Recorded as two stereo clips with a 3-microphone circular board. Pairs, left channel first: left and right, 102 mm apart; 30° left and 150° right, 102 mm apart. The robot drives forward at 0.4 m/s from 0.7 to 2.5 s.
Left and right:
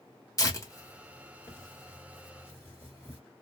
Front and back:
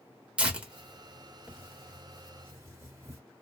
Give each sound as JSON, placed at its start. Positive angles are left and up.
{"t": 0.4, "sound": "tearing paper", "azimuth_deg": 135, "distance_m": 1.1}